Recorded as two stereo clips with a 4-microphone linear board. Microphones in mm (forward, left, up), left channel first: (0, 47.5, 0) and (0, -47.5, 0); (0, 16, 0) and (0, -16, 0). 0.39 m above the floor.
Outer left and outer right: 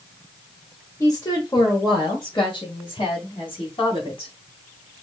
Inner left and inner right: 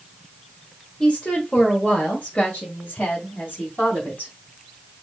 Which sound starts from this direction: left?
A woman speaking, at 1.0 s.